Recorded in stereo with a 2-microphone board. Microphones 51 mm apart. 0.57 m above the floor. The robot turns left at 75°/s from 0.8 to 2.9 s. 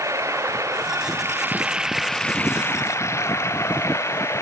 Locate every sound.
0.0 s running water: 90° right; by 4.4 s 115° left